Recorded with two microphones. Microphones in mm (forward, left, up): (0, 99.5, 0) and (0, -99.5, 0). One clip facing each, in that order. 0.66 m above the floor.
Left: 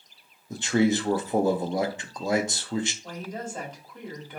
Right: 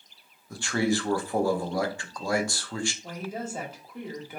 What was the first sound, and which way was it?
A man speaking, 20° left (ahead or behind).